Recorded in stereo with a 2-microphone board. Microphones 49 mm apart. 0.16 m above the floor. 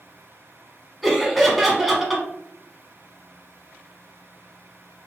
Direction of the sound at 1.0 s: Centre (ahead or behind).